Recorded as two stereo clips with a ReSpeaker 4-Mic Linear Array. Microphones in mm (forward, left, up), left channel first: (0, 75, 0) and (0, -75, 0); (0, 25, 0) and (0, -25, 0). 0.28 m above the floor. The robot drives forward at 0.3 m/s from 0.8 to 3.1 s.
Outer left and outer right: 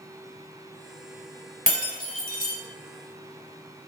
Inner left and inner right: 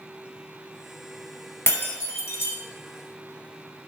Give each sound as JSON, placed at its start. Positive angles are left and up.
{"t": 1.7, "sound": "breaking glass", "side_deg": 55, "distance_m": 0.9}